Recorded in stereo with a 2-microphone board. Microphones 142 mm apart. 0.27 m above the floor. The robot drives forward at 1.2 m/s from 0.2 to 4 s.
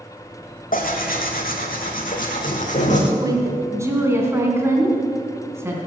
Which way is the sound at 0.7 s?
75° left (ahead or behind).